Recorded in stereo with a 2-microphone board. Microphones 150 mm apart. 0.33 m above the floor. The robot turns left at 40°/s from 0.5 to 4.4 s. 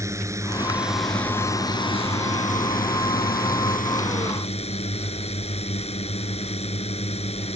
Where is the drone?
160° right; by 7.6 s 45° left.